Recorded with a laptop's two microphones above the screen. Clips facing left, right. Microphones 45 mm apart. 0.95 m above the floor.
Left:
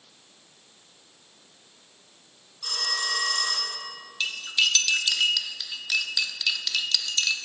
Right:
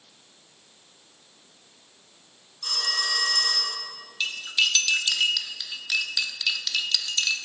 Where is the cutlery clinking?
5° right (ahead or behind), 0.8 m.